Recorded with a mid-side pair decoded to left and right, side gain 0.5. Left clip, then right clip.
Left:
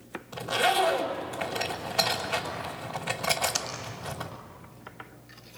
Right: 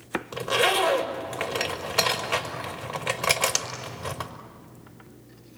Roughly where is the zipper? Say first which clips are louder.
Right 2 dB; ahead right.